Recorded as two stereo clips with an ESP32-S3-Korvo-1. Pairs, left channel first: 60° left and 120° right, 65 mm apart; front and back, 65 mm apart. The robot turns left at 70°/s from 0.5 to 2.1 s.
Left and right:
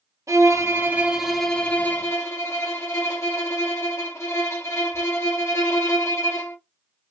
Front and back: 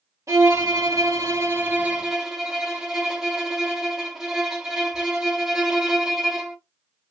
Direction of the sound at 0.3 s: 150° right.